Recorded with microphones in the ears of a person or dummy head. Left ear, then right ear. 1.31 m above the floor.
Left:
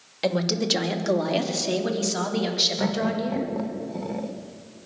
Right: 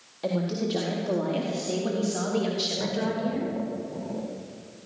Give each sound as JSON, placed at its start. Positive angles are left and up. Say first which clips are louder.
{"t": 0.2, "sound": "a woman speaking", "louder": "left 5 dB", "side_deg": 70, "distance_m": 2.5}
{"t": 2.8, "sound": "laughter", "louder": "left 2 dB", "side_deg": 80, "distance_m": 1.2}